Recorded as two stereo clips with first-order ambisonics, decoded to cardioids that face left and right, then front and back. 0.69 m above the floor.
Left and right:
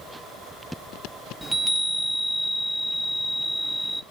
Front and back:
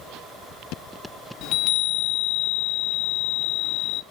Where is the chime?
5° right, 0.5 m.